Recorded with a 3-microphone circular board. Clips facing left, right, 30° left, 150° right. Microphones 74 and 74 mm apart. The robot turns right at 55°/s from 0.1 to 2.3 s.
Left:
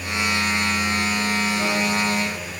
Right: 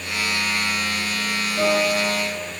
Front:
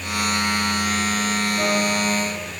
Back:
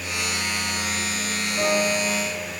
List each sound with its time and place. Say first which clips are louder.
1.6 s a piano: right 2 dB, back 2 dB; 75° right, 6 m; by 2.5 s 35° right, 6 m